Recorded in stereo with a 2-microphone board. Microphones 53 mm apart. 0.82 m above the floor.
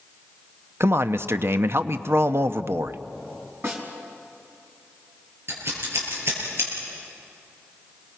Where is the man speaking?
55° right (ahead or behind), 0.8 m.